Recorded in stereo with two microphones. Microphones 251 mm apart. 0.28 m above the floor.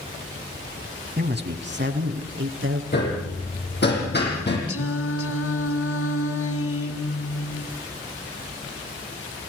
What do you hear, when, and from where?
1.2 s a man speaking: 40° right (ahead or behind), 2 m; by 2.8 s 55° right (ahead or behind), 4 m
2.9 s hammering: 40° left (ahead or behind), 7.5 m
4.7 s singing: 65° left (ahead or behind), 1.4 m